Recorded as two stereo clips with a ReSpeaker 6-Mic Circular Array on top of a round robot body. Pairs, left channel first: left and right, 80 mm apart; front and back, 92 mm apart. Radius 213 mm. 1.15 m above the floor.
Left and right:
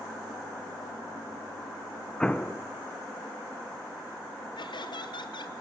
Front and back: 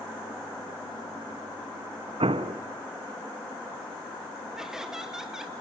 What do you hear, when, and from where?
2.2 s an explosion: 170° left, 1.1 m
4.6 s laughter: 95° left, 1.6 m